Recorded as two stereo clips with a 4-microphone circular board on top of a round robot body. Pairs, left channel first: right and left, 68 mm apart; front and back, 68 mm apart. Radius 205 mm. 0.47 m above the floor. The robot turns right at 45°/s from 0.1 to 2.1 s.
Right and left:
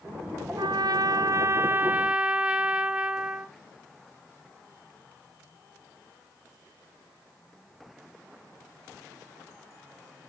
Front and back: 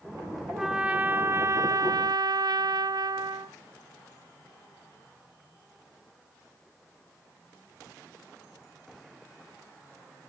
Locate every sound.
0.6 s a trumpet: 100° left, 0.8 m; by 3.5 s 165° left, 0.8 m